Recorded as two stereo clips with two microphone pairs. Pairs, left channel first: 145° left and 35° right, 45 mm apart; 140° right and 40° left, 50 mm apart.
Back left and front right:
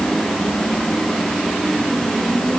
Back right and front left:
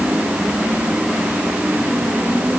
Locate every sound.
Only background noise.